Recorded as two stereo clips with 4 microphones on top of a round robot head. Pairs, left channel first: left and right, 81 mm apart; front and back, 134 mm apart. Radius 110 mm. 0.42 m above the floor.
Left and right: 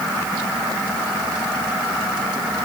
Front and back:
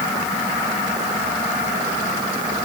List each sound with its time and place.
Only background noise.